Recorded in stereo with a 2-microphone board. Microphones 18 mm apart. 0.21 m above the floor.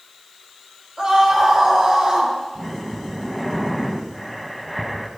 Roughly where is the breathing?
Centre.